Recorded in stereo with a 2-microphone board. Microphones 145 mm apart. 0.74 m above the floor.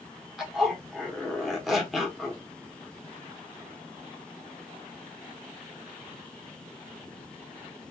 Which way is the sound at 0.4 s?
Centre (ahead or behind).